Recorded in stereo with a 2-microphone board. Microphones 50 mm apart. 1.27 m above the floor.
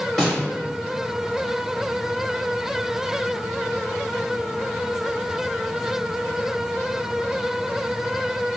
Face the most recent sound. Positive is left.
turn(degrees=5)  # may be behind; listen again after turning